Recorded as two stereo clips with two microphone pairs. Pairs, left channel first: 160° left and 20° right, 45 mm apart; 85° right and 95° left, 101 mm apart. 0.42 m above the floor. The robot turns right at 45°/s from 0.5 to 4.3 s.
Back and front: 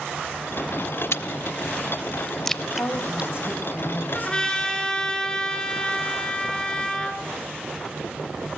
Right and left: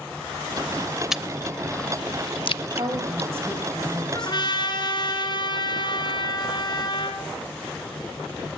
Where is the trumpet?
140° right, 2.5 m; by 7.2 s 130° right, 2.5 m.